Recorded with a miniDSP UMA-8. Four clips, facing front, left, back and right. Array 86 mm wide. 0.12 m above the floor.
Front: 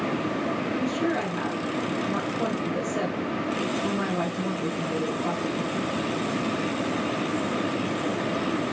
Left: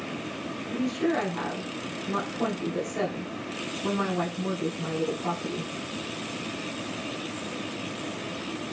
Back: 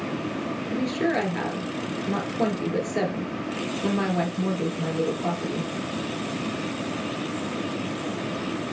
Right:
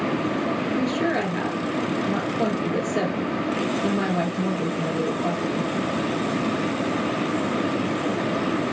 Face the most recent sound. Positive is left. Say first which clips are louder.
# even, back 4 dB
turn(degrees=-145)